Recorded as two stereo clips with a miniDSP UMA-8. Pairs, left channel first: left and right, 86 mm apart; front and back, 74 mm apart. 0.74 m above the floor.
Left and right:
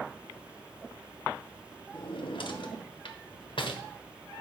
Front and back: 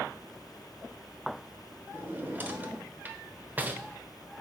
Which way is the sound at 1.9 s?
115° left.